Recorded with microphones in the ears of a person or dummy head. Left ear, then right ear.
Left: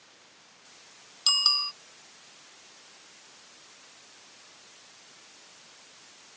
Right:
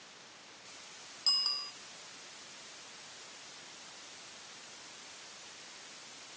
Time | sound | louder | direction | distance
1.3 | a bicycle bell | left 8 dB | 60° left (ahead or behind) | ?